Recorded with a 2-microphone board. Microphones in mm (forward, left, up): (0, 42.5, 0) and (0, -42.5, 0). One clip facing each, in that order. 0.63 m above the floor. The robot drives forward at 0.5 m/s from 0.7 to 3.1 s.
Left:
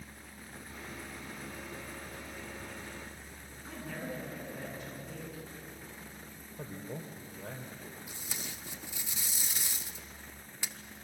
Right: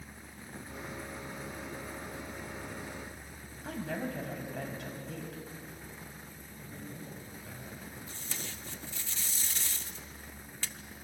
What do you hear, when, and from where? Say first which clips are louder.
3.6 s a woman speaking: right 5 dB; 75° right (ahead or behind), 5 m
6.6 s a man speaking: left 4 dB; 55° left (ahead or behind), 2.5 m
8.1 s tape being pulled: right 1 dB; 15° left (ahead or behind), 0.8 m